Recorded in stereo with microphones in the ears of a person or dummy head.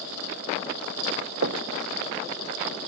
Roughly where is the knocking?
Right.